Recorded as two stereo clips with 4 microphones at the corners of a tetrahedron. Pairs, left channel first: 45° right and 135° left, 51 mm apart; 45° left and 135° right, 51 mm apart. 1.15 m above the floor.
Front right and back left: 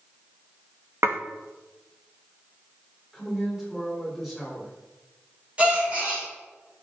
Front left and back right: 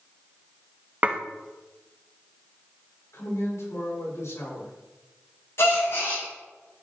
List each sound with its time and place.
1.0 s dishes clattering: 165° left, 0.8 m
3.1 s a man speaking: 50° left, 4 m
5.6 s a gasp: 70° left, 4 m